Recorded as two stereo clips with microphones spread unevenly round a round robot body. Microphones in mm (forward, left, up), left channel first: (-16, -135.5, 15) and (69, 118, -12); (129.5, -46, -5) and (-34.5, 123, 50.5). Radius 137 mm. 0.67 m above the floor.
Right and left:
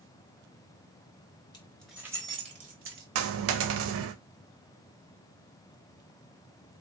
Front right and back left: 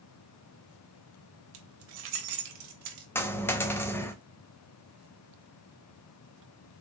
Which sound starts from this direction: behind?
Keys jangling, at 1.5 s.